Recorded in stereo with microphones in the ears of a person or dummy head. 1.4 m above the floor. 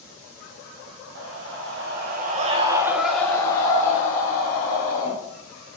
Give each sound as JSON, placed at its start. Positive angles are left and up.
{"t": 1.1, "sound": "a scream", "side_deg": -80, "distance_m": 1.9}